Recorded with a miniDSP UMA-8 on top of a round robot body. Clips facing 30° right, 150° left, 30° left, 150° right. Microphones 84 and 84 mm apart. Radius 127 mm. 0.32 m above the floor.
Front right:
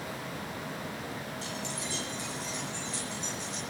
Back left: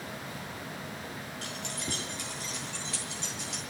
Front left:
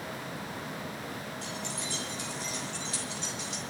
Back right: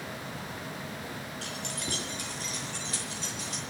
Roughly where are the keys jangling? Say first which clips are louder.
Front right 1 dB, even; behind.